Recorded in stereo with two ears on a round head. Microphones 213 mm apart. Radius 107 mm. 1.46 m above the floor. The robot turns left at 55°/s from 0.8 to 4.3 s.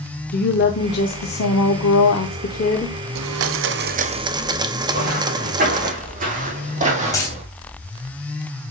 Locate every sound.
0.3 s a woman speaking: 135° left, 0.9 m; by 3.0 s 20° left, 0.9 m
3.1 s a blender: 100° right, 0.7 m; by 5.9 s 160° right, 0.7 m
4.9 s footsteps: 40° right (ahead or behind), 5.5 m; by 7.5 s 30° right (ahead or behind), 2.5 m
7.1 s a dropped coin: 15° left (ahead or behind), 3.5 m